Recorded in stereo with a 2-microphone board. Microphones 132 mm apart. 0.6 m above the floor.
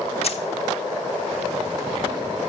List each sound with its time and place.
0.2 s keys jangling: 50° left (ahead or behind), 0.7 m